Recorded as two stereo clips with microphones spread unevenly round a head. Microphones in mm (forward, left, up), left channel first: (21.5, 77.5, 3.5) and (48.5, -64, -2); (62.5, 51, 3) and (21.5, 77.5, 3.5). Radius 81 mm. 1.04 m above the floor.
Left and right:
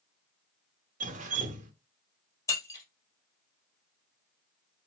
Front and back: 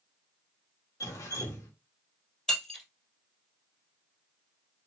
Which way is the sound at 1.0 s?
50° right.